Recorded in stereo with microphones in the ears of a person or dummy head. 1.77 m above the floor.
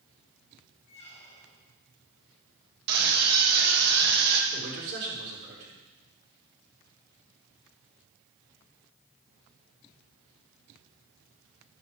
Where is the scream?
60° right (ahead or behind), 3 m.